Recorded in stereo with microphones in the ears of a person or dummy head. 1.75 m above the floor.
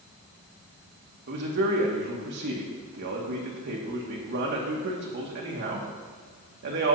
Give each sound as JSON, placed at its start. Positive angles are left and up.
{"t": 1.3, "sound": "a man speaking", "side_deg": -55, "distance_m": 2.0}